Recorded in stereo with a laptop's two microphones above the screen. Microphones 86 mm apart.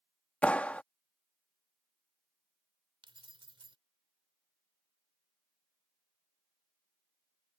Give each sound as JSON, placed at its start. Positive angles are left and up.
{"t": 0.4, "sound": "a clap", "side_deg": 15}
{"t": 3.0, "sound": "keys jangling", "side_deg": -85}